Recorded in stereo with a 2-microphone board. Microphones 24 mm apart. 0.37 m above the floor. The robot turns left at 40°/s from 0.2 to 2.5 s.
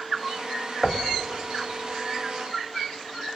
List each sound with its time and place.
0.8 s knocking: 15° left (ahead or behind), 1.3 m; by 1.1 s 25° left (ahead or behind), 1.3 m